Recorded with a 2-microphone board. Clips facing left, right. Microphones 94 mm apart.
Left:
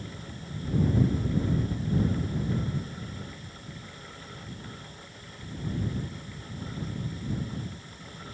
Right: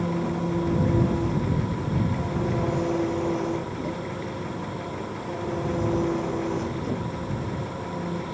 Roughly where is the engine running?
Right.